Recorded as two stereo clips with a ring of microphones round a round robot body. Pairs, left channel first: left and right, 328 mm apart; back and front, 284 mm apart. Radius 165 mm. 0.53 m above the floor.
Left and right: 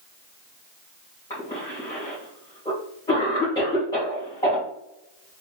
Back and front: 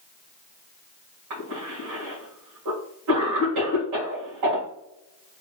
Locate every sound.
1.3 s a cough: 15° left, 2 m